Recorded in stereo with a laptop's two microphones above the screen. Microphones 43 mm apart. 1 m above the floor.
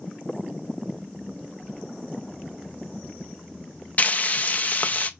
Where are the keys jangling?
60° left (ahead or behind), 2 m.